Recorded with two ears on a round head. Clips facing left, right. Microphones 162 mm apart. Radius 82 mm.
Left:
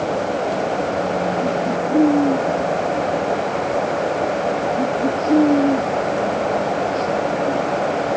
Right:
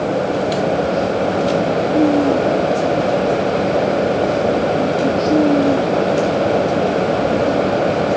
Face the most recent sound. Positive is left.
No sound to turn to.